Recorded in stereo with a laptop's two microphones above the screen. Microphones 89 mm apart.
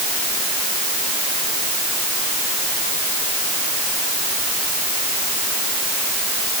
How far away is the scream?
I don't hear a scream.